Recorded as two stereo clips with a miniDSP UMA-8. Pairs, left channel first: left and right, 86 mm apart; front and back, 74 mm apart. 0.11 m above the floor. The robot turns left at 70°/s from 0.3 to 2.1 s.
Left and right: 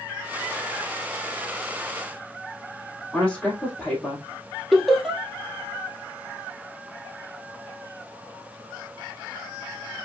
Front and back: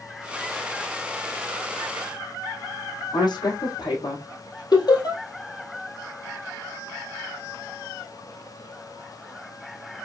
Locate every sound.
3.1 s a woman speaking: 5° left, 3 m
4.7 s laughter: 5° left, 3 m